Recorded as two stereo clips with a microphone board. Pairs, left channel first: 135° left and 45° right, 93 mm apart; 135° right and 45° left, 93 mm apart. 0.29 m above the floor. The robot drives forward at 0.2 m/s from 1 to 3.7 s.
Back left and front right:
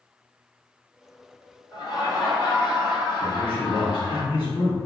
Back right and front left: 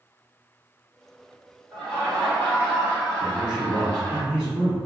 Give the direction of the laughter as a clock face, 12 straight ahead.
8 o'clock.